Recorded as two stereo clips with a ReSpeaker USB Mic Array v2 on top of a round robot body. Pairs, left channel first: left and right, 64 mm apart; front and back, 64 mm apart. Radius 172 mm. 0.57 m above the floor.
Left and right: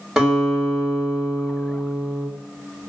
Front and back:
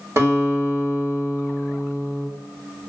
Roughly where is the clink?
I don't hear a clink.